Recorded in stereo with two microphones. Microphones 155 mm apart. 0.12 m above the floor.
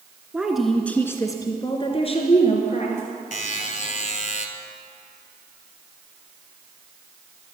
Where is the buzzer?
55° left (ahead or behind), 1.1 m.